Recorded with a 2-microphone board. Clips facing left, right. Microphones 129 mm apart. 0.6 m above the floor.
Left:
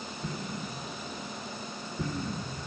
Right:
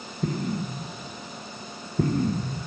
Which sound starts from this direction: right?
An explosion, at 0.2 s.